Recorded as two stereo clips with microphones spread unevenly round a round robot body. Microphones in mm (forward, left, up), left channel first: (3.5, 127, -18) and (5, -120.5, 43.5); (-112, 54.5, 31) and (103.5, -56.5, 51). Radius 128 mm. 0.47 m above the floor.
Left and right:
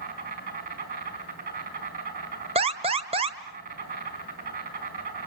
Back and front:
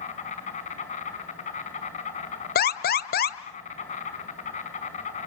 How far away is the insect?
About 5 m.